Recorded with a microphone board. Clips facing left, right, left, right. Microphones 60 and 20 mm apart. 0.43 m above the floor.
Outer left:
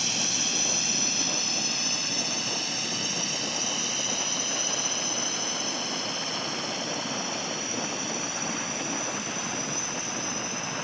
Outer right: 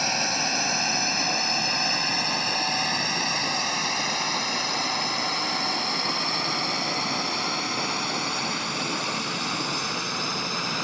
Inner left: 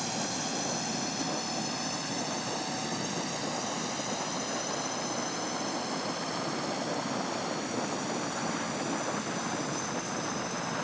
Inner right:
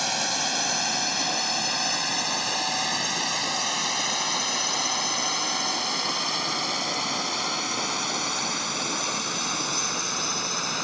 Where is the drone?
45° right (ahead or behind); by 10.8 s 65° right (ahead or behind).